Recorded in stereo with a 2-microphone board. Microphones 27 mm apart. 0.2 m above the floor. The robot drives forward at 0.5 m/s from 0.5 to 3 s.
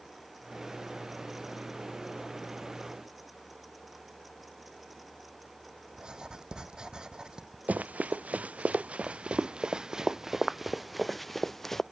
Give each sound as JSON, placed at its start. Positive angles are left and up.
{"t": 5.9, "sound": "writing", "side_deg": -30}
{"t": 7.7, "sound": "running footsteps", "side_deg": -80}